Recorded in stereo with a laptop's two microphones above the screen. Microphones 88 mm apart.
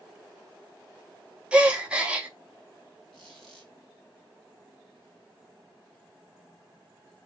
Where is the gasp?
10° right (ahead or behind), 0.6 m.